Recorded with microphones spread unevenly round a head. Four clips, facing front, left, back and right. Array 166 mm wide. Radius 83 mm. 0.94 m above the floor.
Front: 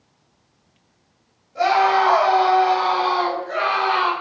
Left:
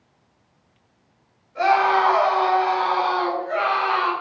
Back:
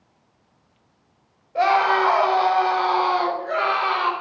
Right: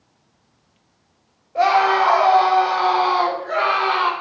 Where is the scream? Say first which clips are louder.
Right 2 dB, front 1 dB; 135° right, 3 m; by 4.1 s 115° right, 4 m.